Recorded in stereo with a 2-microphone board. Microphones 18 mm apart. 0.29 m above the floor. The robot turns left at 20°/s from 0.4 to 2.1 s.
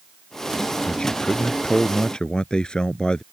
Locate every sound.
0.8 s a man speaking: 75° left (ahead or behind); by 3.2 s 65° left (ahead or behind)